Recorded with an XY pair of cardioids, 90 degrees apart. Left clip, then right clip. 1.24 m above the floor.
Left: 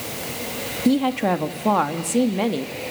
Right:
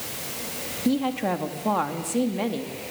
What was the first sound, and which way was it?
A woman speaking, 40° left.